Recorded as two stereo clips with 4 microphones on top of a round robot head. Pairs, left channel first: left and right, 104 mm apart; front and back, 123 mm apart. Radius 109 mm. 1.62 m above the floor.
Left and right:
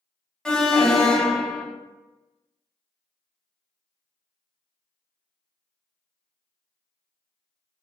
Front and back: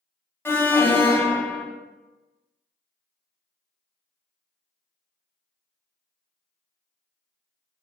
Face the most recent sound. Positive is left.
turn(degrees=20)